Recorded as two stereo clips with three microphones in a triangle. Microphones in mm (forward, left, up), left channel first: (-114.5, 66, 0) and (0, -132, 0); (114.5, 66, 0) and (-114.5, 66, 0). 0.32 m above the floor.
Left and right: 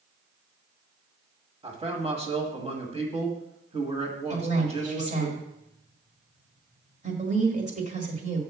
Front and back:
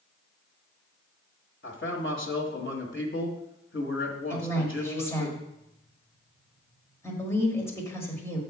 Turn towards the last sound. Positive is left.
turn(degrees=-70)